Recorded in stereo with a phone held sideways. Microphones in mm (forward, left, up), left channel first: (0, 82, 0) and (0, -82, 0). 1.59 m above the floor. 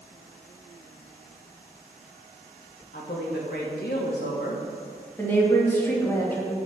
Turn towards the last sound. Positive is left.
turn(degrees=15)  # may be behind; listen again after turning